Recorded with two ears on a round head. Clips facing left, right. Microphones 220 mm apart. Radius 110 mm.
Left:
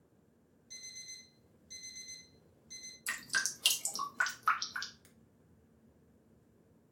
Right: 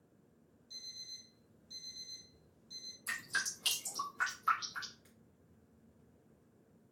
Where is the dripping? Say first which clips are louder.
Left 2 dB; 65° left (ahead or behind), 1.1 m.